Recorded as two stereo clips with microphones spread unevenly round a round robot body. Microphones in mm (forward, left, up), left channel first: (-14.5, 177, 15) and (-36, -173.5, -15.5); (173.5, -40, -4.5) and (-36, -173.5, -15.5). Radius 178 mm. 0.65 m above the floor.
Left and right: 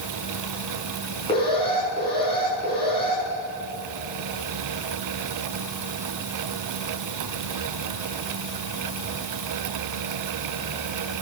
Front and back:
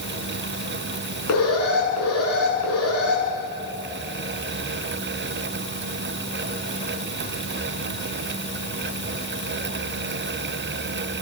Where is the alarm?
10° left, 8 m.